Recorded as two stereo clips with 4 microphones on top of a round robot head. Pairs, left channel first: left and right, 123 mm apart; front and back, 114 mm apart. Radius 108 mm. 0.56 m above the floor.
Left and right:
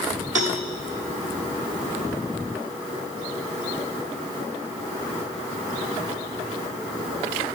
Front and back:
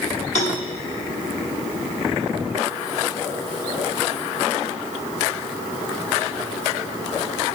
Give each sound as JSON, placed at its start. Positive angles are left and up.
{"t": 0.3, "sound": "a cowbell", "azimuth_deg": -45, "distance_m": 0.9}